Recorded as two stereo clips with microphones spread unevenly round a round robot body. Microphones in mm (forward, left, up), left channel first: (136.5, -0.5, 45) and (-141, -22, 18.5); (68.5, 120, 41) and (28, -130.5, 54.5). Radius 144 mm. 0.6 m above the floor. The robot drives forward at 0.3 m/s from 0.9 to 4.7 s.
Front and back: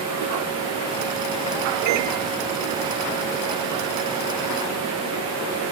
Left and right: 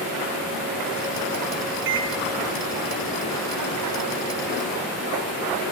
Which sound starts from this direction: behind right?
A microwave, at 1.9 s.